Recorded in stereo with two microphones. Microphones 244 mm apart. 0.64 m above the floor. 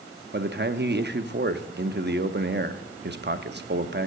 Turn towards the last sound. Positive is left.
turn(degrees=-45)  # may be behind; listen again after turning